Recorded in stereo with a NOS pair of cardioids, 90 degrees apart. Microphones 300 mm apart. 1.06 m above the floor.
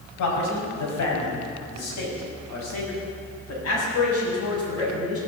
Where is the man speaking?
70° left, 7 m; by 5.2 s 50° left, 9 m.